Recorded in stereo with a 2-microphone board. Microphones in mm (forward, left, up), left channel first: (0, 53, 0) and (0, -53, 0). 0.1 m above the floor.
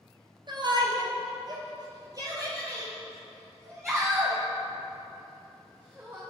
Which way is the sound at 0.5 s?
45° right (ahead or behind).